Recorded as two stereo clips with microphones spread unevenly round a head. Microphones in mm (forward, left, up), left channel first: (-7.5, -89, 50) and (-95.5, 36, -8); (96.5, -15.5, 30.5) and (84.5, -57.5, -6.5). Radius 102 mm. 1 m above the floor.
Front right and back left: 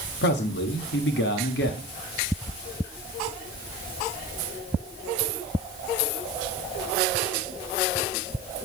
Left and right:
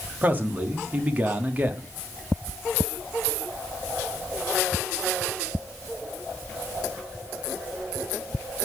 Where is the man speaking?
65° right, 1.7 m.